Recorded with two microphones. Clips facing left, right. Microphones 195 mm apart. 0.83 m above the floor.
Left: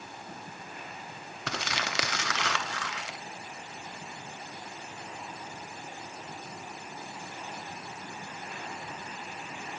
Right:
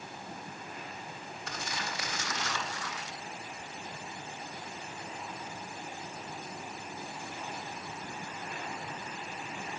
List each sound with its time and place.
1.5 s crumpling: 90° left, 0.8 m